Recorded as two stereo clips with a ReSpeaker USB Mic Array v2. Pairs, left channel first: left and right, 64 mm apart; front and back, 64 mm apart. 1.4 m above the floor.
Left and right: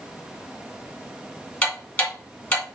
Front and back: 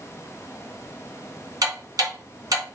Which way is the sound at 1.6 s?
150° left.